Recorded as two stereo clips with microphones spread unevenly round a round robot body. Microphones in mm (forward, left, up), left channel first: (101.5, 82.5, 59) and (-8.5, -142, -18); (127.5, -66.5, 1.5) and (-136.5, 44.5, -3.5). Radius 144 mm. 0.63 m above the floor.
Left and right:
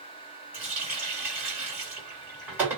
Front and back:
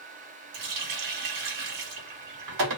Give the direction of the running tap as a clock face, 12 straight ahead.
6 o'clock.